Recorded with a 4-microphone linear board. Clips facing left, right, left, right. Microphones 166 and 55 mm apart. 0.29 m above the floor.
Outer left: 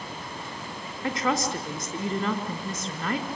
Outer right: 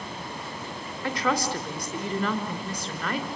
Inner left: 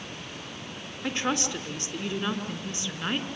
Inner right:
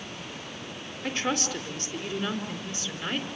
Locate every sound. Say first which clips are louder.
1.0 s a woman speaking: even, inner left 1 dB; 25° left (ahead or behind), 3.5 m